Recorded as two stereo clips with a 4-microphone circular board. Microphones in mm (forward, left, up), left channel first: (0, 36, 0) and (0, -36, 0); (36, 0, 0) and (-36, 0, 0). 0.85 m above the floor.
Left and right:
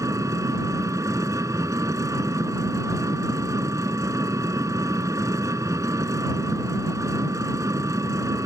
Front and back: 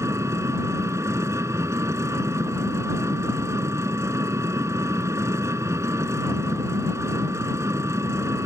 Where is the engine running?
130° right.